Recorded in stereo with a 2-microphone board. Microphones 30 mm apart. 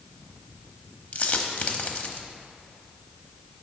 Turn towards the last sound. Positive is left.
turn(degrees=50)  # may be behind; listen again after turning